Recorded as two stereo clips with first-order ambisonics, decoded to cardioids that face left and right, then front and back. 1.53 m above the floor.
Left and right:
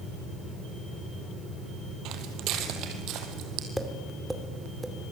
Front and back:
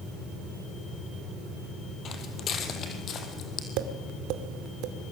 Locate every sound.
2.0 s footsteps: 55° right, 3 m
3.8 s tapping: 175° right, 2 m